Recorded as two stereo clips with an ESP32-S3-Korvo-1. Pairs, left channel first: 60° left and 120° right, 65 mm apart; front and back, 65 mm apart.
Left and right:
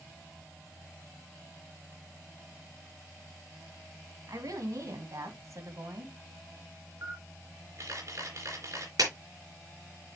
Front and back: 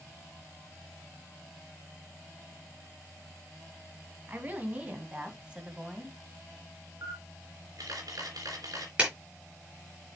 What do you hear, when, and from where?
4.3 s a woman speaking: 120° right, 2.5 m; by 6.1 s 100° right, 1.7 m
7.0 s a camera shutter: 160° right, 3 m
9.0 s a clap: 110° right, 4 m